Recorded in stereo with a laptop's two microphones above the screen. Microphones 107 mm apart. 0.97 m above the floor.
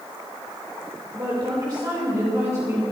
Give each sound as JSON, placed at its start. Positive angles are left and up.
{"t": 1.1, "sound": "a woman speaking", "side_deg": -45, "distance_m": 3.5}